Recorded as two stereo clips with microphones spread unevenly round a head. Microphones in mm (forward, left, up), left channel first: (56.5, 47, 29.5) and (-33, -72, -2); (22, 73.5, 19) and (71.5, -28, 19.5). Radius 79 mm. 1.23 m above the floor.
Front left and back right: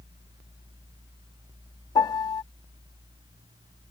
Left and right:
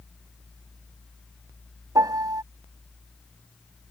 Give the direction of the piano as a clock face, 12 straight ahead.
12 o'clock.